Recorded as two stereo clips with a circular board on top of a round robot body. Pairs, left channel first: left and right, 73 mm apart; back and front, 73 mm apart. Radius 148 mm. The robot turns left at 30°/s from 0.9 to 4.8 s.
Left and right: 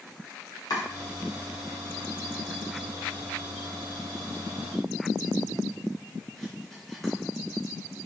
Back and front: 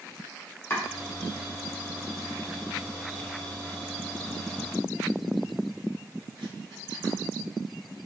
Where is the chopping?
120° left, 0.8 m; by 7.1 s 5° left, 0.8 m.